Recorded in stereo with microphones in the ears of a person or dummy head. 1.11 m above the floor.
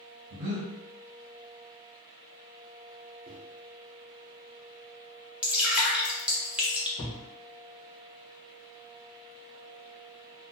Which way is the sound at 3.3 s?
35° right (ahead or behind).